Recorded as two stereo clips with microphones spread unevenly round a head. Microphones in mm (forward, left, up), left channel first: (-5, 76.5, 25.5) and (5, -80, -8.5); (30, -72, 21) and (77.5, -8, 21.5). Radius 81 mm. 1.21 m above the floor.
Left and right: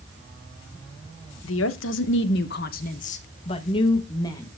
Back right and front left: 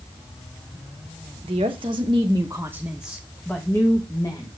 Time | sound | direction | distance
1.4 | a woman speaking | 90° left | 1.0 m